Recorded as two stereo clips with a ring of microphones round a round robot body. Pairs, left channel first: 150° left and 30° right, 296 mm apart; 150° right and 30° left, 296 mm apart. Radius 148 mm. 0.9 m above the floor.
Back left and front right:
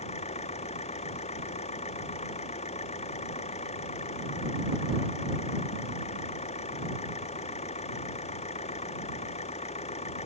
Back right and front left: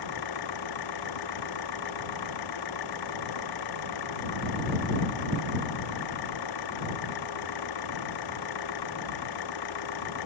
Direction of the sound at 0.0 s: 140° right.